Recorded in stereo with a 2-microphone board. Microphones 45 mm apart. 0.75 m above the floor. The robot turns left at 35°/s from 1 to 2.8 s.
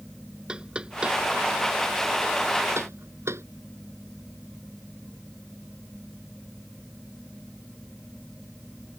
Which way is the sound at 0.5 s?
20° right (ahead or behind).